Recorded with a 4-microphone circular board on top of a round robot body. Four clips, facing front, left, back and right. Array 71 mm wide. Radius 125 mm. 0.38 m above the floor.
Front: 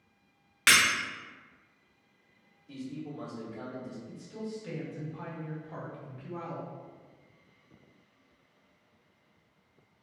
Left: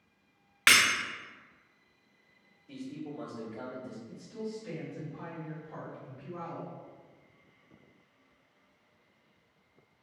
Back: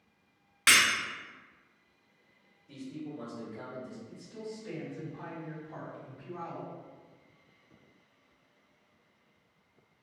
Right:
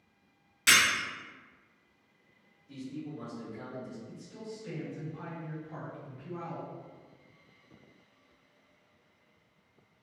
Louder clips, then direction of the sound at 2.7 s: Even, front 1 dB; 55° left.